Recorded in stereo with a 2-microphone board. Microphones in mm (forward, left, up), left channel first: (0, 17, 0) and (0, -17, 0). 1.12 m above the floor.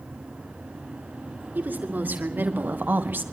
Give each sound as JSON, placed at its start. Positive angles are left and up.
{"t": 1.6, "sound": "a woman speaking", "side_deg": -65, "distance_m": 3.0}